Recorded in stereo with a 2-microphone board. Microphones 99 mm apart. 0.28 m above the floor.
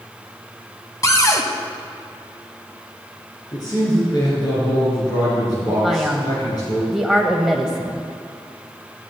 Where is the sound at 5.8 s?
5° right (ahead or behind), 1.0 m.